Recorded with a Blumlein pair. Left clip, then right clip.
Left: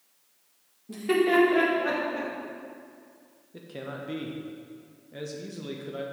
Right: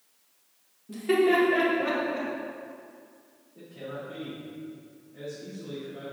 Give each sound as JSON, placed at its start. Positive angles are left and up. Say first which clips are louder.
{"t": 0.9, "sound": "laughter", "louder": "even", "azimuth_deg": 10, "distance_m": 1.9}
{"t": 3.5, "sound": "a man speaking", "louder": "left 1 dB", "azimuth_deg": 45, "distance_m": 1.1}